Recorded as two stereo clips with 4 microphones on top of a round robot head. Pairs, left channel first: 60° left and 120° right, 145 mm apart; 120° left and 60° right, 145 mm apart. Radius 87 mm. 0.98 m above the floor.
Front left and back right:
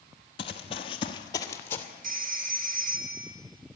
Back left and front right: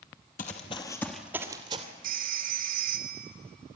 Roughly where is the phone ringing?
Right.